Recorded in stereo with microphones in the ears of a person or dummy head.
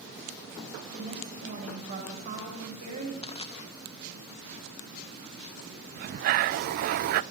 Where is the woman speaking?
45° right (ahead or behind), 8 m.